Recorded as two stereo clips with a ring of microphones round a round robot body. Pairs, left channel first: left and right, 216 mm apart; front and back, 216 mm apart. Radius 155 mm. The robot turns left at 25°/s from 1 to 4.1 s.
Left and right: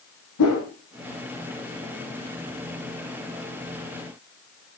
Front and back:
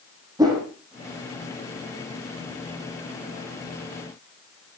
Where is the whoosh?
105° left, 5.5 m.